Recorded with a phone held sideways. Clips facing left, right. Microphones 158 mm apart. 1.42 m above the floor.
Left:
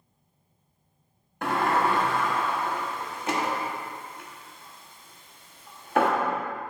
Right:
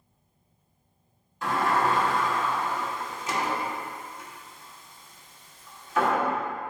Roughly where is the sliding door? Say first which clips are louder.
Left 1 dB; left.